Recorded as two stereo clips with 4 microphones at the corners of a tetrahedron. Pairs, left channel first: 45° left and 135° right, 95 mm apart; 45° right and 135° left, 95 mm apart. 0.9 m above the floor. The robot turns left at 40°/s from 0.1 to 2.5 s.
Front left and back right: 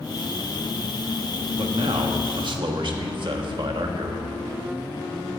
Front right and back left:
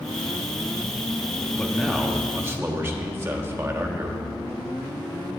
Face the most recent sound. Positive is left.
turn(degrees=-165)